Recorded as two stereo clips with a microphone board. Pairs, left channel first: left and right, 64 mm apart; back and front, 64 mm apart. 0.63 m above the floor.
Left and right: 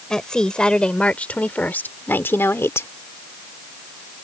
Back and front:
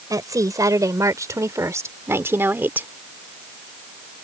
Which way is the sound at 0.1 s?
10° left.